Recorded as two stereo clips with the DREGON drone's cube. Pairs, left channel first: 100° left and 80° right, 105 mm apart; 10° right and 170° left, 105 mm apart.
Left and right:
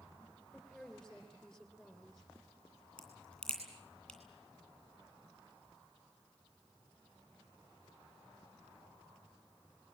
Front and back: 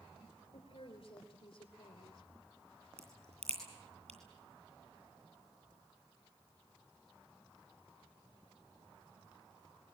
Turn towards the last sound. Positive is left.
turn(degrees=-175)